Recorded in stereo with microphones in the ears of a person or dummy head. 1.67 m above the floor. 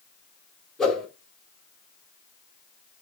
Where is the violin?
No violin in this recording.